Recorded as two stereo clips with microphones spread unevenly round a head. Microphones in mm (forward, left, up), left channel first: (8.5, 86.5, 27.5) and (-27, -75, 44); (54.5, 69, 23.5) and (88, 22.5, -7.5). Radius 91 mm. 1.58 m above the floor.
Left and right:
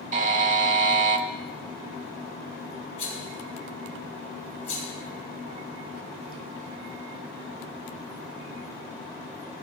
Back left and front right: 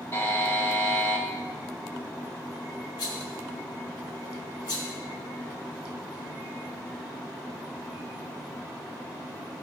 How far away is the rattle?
About 3.5 m.